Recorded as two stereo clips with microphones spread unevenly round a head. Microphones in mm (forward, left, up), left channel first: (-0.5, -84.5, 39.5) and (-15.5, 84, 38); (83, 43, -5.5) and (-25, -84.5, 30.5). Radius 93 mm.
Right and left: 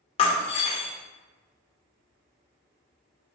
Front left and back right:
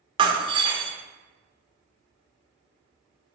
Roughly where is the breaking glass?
Behind right.